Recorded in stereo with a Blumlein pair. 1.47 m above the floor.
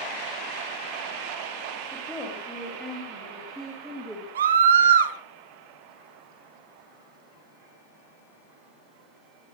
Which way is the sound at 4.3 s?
65° right.